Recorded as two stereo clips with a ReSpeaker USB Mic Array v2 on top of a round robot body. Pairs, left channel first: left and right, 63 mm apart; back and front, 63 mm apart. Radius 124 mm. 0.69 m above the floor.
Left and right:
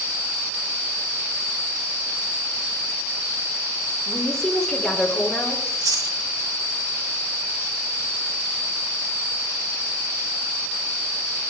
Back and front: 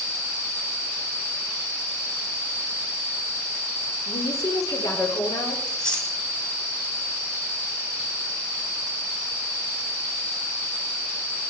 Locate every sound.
4.1 s a woman speaking: 175° left, 3 m
5.7 s chewing: 105° right, 2.5 m